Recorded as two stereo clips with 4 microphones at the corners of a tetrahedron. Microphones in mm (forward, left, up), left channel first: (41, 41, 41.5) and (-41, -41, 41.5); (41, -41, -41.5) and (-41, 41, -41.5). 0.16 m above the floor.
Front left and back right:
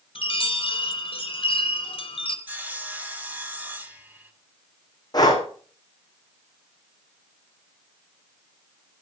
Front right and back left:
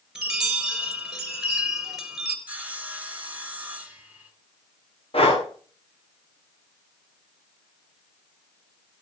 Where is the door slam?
No door slam in this recording.